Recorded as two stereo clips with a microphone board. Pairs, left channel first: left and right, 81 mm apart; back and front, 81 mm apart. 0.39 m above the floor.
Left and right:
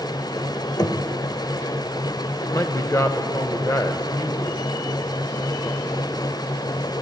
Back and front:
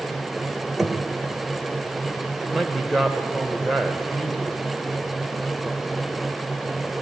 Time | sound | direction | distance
0.8 | knocking | 90° left | 1.1 m
2.4 | a man speaking | 90° left | 1.0 m